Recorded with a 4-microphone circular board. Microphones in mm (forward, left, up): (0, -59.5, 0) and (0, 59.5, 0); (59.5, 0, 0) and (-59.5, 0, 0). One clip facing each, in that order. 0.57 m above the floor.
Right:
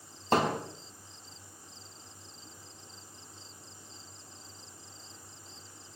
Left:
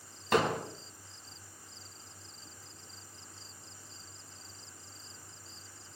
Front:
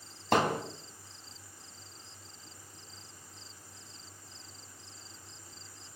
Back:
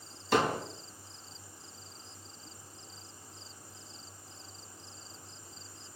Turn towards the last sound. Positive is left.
turn(degrees=-35)